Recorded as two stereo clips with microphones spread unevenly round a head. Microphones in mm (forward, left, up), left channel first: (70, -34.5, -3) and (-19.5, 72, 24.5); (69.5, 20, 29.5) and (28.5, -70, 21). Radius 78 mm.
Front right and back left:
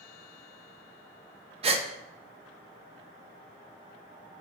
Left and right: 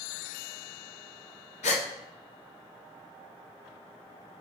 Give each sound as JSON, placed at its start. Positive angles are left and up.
{"t": 1.6, "sound": "a gasp", "azimuth_deg": 85, "distance_m": 0.8}